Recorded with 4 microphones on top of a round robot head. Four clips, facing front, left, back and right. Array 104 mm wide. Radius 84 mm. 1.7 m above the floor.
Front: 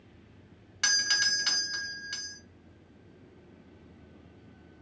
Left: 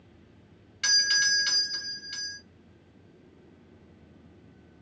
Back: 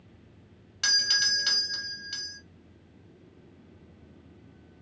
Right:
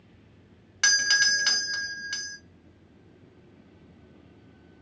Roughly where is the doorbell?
Right.